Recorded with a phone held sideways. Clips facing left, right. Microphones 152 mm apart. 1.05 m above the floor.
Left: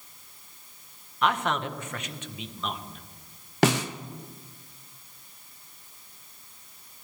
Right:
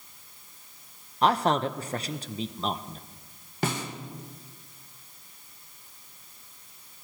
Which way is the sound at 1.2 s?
35° right (ahead or behind).